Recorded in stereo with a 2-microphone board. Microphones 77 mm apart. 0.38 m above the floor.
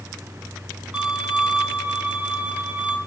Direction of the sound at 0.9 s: 15° right (ahead or behind).